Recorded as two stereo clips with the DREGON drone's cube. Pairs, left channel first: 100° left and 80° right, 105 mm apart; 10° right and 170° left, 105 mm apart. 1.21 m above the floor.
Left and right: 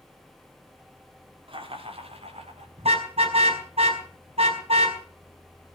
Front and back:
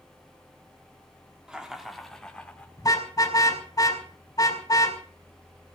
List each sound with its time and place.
1.5 s laughter: 110° right, 3.5 m; by 2.7 s 90° right, 5 m
2.8 s a car horn: 65° right, 4.5 m